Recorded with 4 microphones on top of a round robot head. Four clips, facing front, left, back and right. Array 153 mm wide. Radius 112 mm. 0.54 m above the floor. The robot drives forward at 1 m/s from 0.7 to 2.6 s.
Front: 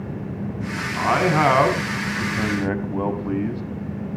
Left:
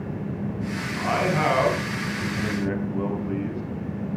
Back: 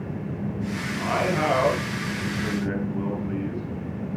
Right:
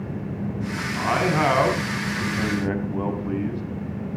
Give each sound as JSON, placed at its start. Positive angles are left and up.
{"t": 0.9, "sound": "a man speaking", "azimuth_deg": -5, "distance_m": 5.5}